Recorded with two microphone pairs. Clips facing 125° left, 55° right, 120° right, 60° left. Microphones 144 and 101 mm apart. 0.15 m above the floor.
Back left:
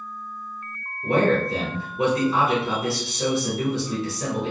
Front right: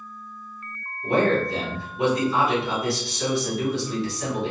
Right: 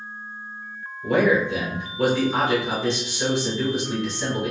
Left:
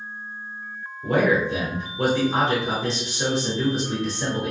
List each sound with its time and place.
1.0 s a man speaking: 105° left, 1.3 m